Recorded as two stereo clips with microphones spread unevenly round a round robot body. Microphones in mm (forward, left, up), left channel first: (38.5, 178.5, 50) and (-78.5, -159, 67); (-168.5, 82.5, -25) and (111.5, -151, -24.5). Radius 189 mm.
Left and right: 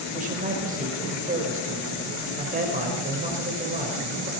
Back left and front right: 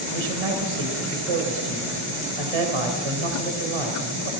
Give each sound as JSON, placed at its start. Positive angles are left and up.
{"t": 0.1, "sound": "a man speaking", "azimuth_deg": -40, "distance_m": 3.5}